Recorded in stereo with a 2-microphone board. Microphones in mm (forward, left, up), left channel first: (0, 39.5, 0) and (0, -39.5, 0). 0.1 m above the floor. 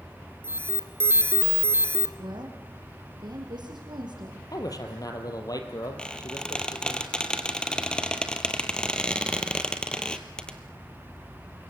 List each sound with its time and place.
0.4 s an alarm: 30° right (ahead or behind), 1.7 m
2.2 s a woman speaking: 70° right (ahead or behind), 5.5 m
4.5 s a man speaking: 55° left (ahead or behind), 3.5 m
6.0 s a squeak: 10° left (ahead or behind), 1.6 m